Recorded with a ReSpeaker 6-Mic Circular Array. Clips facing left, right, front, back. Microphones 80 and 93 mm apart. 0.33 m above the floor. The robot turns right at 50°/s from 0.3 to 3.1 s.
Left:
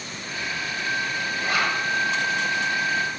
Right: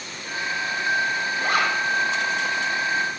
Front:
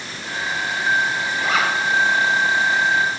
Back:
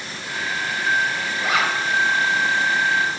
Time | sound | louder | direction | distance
1.4 | a zipper | right 2 dB, front 1 dB | 105° right | 1.0 m